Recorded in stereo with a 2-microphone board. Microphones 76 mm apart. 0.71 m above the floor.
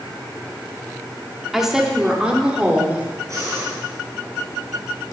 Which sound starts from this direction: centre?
A woman speaking, at 1.5 s.